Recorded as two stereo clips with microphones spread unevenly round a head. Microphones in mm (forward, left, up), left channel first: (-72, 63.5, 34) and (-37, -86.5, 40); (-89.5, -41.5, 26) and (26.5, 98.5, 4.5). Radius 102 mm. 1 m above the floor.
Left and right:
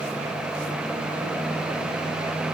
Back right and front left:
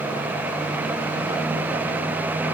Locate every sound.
Only background noise.